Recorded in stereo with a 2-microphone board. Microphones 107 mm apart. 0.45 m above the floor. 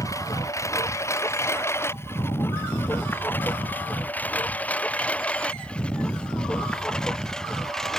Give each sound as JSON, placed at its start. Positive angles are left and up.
{"t": 0.0, "sound": "a lawn mower", "side_deg": 30}